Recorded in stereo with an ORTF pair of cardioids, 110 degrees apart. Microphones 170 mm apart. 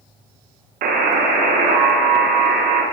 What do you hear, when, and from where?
0.8 s a buzzer: 60° right, 1.1 m